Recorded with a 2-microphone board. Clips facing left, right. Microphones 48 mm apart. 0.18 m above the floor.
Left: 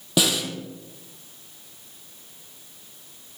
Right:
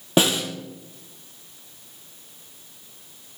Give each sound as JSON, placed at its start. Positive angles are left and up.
{"t": 0.2, "sound": "a snare drum", "side_deg": -35, "distance_m": 1.8}